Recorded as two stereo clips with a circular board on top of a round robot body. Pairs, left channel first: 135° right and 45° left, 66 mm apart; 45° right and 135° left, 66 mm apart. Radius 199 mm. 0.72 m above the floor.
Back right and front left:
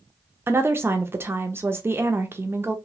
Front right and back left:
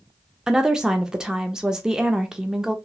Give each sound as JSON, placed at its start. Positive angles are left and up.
{"t": 0.5, "sound": "a woman speaking", "azimuth_deg": 60, "distance_m": 0.6}